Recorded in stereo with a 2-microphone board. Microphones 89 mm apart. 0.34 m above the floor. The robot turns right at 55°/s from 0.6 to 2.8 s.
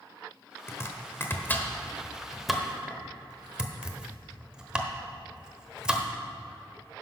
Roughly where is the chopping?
Left.